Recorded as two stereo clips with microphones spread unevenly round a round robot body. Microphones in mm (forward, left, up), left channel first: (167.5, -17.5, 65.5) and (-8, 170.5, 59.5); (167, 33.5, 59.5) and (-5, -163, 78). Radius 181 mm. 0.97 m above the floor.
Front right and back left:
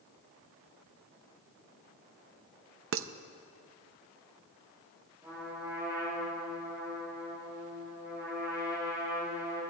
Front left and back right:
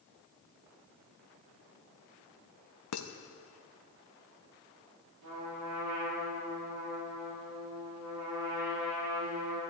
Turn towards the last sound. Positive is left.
turn(degrees=-145)